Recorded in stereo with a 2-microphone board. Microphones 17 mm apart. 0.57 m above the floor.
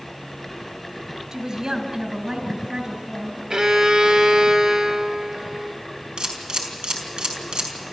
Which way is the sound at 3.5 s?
60° right (ahead or behind).